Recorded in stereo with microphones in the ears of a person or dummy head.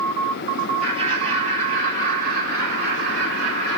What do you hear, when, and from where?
0.8 s laughter: 25° right (ahead or behind), 3 m; by 3.8 s 65° right (ahead or behind), 3.5 m